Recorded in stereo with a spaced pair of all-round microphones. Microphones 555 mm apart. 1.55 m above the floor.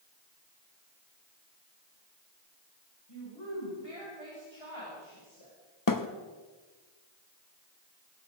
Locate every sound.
3.1 s a woman speaking: 45° left (ahead or behind), 7 m; by 5.5 s 60° left (ahead or behind), 7 m
5.9 s a thud: 35° left (ahead or behind), 1.1 m